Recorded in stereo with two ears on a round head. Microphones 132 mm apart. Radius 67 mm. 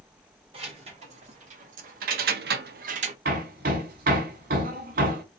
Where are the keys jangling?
45° right (ahead or behind), 1.4 m; by 3.1 s 40° right (ahead or behind), 0.5 m.